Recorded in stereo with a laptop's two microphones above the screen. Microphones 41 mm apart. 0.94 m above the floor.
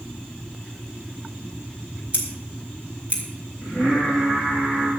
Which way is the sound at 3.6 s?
10° right (ahead or behind).